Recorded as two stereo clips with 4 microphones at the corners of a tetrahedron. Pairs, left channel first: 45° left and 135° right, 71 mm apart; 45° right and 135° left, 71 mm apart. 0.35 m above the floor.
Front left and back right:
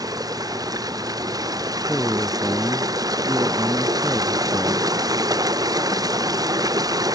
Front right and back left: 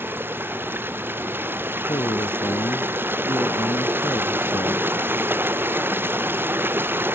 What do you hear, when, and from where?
0.0 s running water: 165° right
1.9 s a man speaking: 50° right